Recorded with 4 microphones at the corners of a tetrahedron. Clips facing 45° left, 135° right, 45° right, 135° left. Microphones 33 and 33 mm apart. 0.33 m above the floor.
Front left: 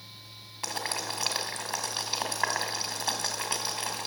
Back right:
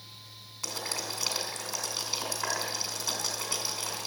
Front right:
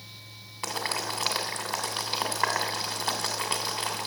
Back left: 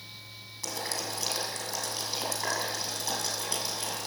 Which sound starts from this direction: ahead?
Boiling, at 0.6 s.